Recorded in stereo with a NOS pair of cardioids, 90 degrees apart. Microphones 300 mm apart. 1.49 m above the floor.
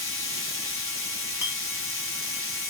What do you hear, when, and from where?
0.0 s a machine running: 45° left, 1.1 m
1.4 s a clink: 15° left, 1.1 m